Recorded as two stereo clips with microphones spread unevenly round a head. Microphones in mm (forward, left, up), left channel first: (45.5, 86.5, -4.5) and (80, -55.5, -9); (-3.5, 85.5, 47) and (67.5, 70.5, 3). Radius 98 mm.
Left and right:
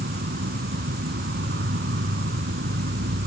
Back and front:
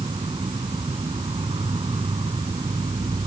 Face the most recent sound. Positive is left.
turn(degrees=-75)